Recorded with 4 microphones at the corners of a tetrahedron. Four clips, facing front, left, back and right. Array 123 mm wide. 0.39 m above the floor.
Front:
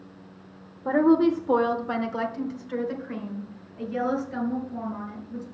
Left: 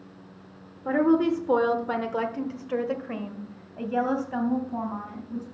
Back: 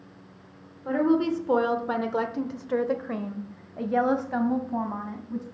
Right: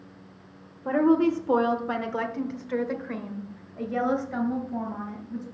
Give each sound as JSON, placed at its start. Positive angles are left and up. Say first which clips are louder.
{"t": 0.8, "sound": "a woman speaking", "louder": "even, front 4 dB", "azimuth_deg": -5, "distance_m": 1.1}